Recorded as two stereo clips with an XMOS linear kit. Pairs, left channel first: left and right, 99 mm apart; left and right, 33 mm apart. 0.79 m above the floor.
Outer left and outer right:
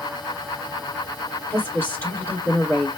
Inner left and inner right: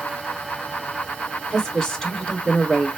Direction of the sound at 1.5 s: 20° left (ahead or behind).